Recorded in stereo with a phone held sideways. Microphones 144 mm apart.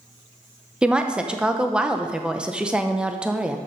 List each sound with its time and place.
0.8 s a woman speaking: 5° right (ahead or behind), 0.7 m